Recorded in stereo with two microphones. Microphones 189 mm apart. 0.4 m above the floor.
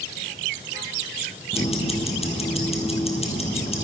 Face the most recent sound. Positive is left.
turn(degrees=30)  # may be behind; listen again after turning